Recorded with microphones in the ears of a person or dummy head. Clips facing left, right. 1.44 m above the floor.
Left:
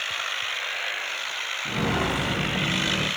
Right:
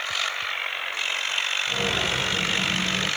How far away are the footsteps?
About 5 m.